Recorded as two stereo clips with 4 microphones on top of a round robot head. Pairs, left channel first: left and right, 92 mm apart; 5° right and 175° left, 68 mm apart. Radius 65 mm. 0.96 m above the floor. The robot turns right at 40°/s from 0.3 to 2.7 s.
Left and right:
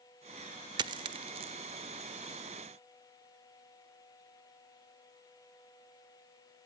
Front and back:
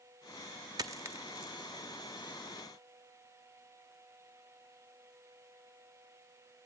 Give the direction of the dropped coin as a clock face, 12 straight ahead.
4 o'clock.